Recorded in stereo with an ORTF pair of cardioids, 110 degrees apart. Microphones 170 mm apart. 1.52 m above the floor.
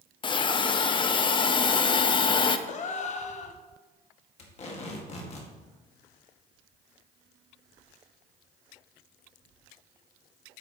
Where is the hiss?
30° left, 0.6 m.